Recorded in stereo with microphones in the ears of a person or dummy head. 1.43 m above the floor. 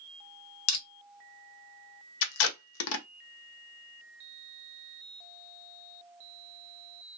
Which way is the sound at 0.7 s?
70° left (ahead or behind).